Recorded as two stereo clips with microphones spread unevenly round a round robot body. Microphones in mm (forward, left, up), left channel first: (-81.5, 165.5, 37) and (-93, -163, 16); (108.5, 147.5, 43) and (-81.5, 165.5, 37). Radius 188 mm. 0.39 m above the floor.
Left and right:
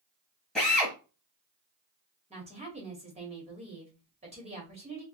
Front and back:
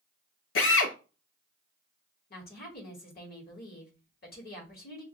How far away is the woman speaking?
About 1.5 m.